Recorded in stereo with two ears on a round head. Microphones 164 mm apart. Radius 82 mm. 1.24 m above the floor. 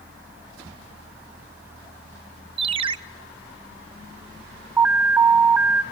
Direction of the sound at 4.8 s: 10° right (ahead or behind).